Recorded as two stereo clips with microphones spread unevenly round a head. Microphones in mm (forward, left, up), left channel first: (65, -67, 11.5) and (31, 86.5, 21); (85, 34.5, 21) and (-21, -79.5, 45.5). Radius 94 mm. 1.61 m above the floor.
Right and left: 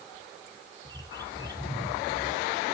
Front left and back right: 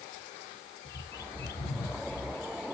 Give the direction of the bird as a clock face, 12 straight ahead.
11 o'clock.